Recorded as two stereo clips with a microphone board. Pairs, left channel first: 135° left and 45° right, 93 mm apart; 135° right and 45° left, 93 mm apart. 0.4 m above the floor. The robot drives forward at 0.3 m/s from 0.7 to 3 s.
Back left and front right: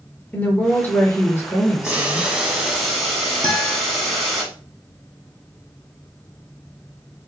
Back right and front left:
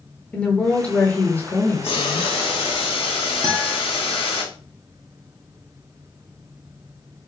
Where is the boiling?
120° right, 1.0 m; by 4.4 s 135° right, 1.2 m.